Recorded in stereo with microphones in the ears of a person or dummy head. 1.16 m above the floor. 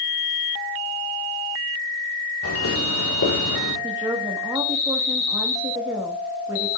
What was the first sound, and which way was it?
Footsteps, 70° left (ahead or behind).